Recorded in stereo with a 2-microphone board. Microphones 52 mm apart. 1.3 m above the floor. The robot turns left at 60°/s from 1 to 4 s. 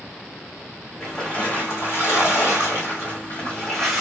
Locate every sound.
1.0 s a splash: 175° left, 1.8 m; by 4.0 s 5° right, 1.8 m